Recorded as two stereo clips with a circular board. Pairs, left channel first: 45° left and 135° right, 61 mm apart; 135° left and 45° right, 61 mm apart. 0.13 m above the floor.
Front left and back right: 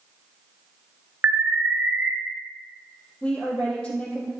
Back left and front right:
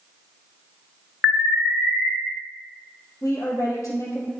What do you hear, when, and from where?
1.2 s an alarm: 135° right, 2.5 m
3.2 s a woman speaking: 120° left, 3.5 m